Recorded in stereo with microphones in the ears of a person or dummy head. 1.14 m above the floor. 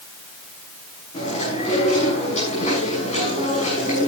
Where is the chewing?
45° left (ahead or behind), 7 m.